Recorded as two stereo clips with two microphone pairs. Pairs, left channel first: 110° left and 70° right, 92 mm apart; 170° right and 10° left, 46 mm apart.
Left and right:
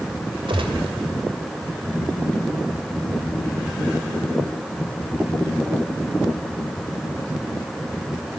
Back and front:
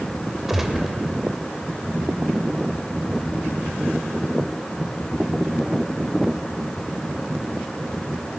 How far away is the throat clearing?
No throat clearing in this recording.